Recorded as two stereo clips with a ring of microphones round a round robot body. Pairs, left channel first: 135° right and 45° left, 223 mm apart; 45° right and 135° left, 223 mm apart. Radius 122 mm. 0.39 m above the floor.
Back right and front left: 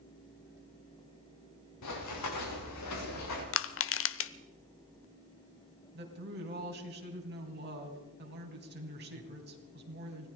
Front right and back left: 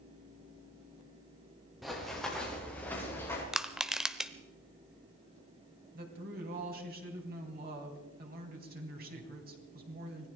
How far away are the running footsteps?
About 5 m.